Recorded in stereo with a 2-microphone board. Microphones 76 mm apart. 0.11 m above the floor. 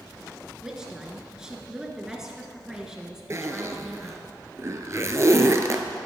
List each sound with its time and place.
0.6 s a woman speaking: 10° right (ahead or behind), 1.3 m
3.3 s a zipper: 40° right (ahead or behind), 0.6 m